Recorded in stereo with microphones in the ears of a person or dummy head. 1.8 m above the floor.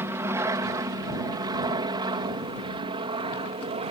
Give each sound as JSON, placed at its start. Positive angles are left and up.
{"t": 0.0, "sound": "an aircraft", "side_deg": -15}